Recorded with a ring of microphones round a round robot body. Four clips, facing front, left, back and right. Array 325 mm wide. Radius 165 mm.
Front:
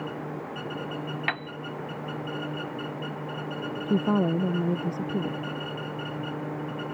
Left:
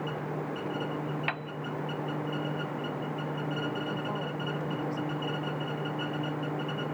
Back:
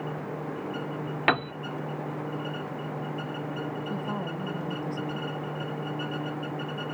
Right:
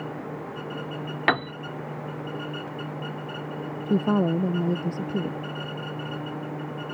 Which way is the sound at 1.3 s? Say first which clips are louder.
Right 11 dB, back 11 dB; 130° right.